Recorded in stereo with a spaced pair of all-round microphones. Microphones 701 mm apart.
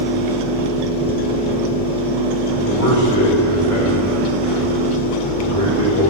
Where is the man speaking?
25° left (ahead or behind), 5 m.